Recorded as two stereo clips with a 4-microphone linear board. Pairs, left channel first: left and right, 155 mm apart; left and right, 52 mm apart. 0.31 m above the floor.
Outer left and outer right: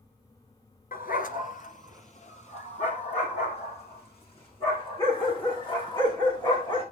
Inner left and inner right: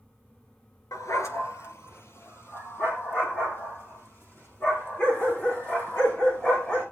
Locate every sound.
0.9 s a dog barking: 75° left (ahead or behind), 1.4 m; by 6.8 s 35° left (ahead or behind), 9 m